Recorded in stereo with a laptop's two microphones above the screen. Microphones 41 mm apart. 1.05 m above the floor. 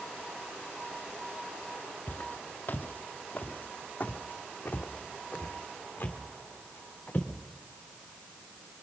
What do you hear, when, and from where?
2.1 s footsteps: 45° left (ahead or behind), 1.4 m; by 7.3 s 40° left (ahead or behind), 4.5 m